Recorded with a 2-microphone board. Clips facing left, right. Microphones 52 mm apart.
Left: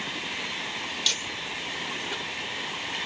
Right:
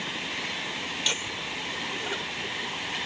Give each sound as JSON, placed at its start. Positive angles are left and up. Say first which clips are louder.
{"t": 1.1, "sound": "laughter", "louder": "right 1 dB", "side_deg": -20}